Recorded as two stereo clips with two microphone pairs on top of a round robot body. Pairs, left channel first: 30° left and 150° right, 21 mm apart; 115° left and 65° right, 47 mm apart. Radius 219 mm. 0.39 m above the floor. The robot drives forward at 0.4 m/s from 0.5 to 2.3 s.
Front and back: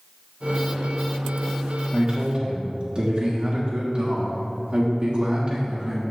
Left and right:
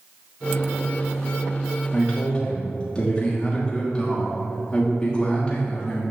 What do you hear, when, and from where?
1.9 s a man speaking: 175° right, 1.4 m